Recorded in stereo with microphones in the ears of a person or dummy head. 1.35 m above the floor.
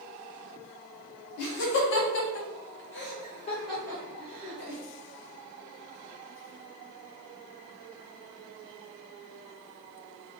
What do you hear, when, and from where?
1.4 s laughter: 65° left (ahead or behind), 1.3 m; by 4.8 s 10° right (ahead or behind), 1.2 m